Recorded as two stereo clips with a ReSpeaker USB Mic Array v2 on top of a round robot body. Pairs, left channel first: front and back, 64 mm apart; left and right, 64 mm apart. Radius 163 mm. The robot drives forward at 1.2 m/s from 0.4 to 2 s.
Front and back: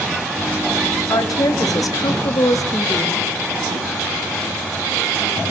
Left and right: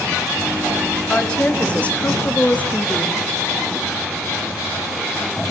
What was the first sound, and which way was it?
A woman speaking, 15° left.